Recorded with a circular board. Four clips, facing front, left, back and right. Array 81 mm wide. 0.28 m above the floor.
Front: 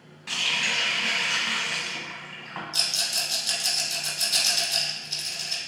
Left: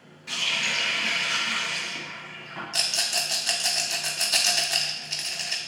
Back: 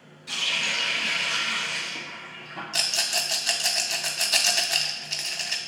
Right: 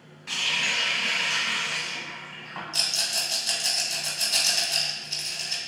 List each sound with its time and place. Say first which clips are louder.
0.3 s a running tap: even, front 1 dB; 20° right, 1.2 m
2.7 s a rattle: left 2 dB, back 3 dB; 155° left, 0.5 m